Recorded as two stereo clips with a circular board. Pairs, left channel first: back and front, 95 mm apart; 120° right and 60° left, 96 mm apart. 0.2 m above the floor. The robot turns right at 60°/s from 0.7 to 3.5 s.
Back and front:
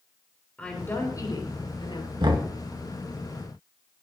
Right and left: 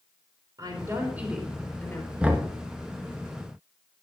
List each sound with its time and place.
0.6 s a woman speaking: 105° left, 4 m; by 2.1 s 175° right, 4 m
2.2 s knocking: 15° right, 2 m; by 2.5 s straight ahead, 2 m